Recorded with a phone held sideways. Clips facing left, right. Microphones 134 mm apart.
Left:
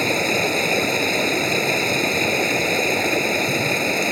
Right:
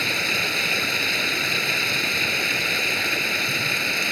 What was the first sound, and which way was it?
Running water, 45° left (ahead or behind).